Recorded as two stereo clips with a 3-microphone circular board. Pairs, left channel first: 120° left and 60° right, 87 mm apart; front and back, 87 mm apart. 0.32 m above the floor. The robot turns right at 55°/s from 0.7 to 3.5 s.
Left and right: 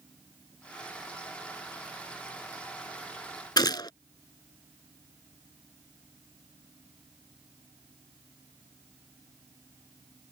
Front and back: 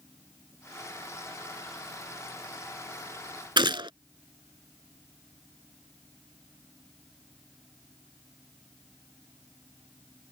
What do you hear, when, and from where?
3.6 s a gunshot: 155° left